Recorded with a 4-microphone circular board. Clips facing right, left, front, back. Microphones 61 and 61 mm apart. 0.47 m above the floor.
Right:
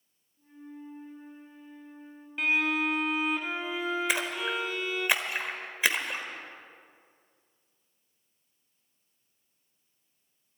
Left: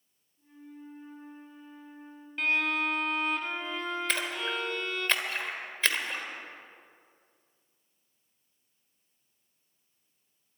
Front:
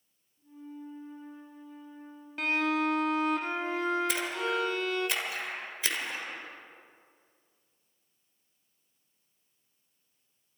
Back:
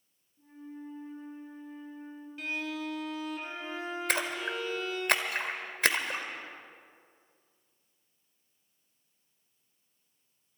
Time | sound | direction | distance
0.4 | a flute | 175° right | 7 m
2.4 | a violin | 10° right | 0.8 m
4.1 | a splash | 165° right | 1.3 m